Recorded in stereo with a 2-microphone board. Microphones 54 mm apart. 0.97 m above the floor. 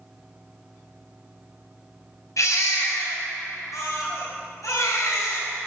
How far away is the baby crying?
About 3.5 m.